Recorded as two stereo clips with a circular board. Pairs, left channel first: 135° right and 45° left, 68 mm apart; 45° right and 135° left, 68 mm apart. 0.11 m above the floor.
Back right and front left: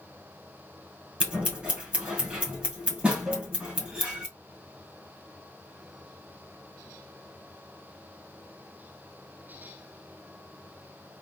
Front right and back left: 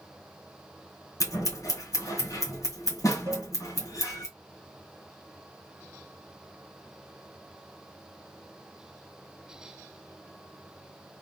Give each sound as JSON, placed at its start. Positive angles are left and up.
{"t": 1.2, "sound": "scissors", "azimuth_deg": -25, "distance_m": 2.0}
{"t": 3.3, "sound": "a cowbell", "azimuth_deg": 135, "distance_m": 0.7}